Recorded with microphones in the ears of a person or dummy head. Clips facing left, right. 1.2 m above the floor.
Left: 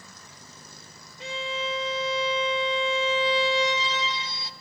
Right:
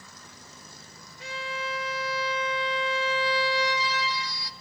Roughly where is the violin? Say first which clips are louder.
Left 3 dB; left.